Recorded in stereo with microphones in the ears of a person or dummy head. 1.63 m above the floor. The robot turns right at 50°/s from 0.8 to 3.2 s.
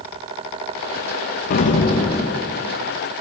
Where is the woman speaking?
No woman speaking in this recording.